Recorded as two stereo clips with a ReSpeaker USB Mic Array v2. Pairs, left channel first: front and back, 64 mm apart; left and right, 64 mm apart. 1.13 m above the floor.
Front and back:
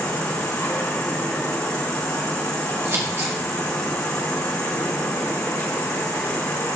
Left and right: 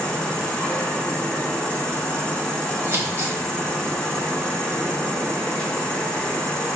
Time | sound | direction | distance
0.0 | an insect | 15° left | 2.0 m
2.9 | scissors | 135° right | 1.7 m